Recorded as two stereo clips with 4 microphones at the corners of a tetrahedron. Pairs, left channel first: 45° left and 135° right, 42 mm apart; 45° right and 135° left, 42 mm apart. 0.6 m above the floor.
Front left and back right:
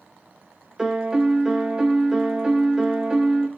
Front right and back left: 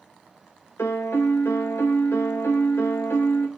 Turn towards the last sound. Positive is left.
turn(degrees=-55)